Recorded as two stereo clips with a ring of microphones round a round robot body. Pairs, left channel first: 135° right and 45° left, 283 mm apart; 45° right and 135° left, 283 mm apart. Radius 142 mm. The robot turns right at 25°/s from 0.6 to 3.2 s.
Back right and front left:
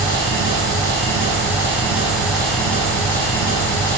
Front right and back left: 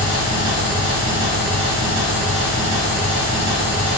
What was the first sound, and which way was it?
An engine running, 90° left.